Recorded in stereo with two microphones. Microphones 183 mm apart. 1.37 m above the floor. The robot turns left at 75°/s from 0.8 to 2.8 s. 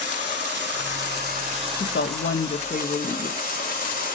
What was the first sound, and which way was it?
Running water, 80° right.